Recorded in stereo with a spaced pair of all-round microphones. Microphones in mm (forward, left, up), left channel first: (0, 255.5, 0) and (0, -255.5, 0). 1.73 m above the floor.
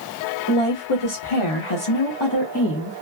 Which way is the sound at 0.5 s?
75° left (ahead or behind).